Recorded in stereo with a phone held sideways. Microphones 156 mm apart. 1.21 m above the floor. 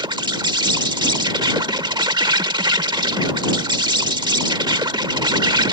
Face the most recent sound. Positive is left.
turn(degrees=-30)  # may be behind; listen again after turning